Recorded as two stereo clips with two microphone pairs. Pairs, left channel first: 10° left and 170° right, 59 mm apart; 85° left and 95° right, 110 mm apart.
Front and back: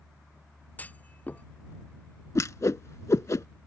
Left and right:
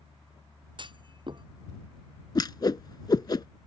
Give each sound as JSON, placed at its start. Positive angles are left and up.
{"t": 0.8, "sound": "a clunk", "azimuth_deg": -50}
{"t": 2.4, "sound": "a whoosh", "azimuth_deg": 40}